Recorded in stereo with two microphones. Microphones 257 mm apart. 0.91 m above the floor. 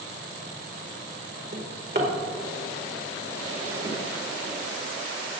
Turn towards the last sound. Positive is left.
turn(degrees=-40)  # may be behind; listen again after turning